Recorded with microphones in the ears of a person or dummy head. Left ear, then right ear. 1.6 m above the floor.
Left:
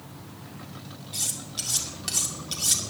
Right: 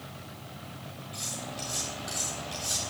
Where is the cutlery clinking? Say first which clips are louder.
Left 5 dB; 35° left (ahead or behind), 2.5 m.